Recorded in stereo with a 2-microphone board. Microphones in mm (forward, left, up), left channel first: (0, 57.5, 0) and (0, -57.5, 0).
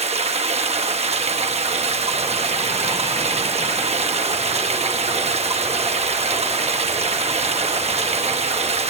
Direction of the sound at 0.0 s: 65° right (ahead or behind).